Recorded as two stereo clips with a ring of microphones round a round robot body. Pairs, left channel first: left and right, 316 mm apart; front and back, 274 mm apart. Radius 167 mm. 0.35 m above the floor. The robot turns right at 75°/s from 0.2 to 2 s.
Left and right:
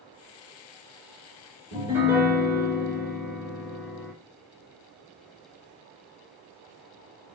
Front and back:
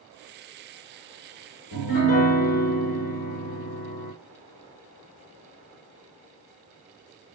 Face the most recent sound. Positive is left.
turn(degrees=-5)